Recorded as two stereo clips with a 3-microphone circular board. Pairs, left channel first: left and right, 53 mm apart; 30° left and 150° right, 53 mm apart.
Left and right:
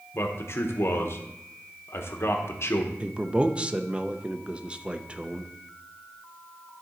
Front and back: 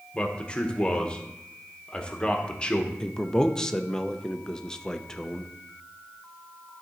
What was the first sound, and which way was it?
A man speaking, 95° left.